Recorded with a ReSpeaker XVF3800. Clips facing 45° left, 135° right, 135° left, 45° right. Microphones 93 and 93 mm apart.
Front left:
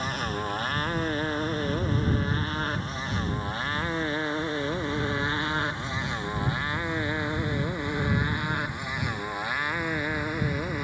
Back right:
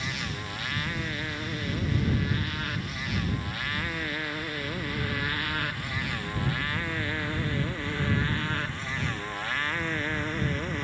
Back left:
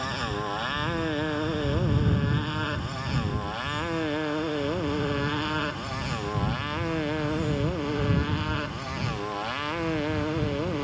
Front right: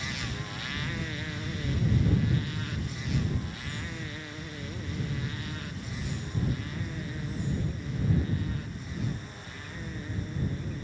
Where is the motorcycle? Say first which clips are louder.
Front left 6 dB, back left 8 dB; 95° left; by 10.8 s 125° left.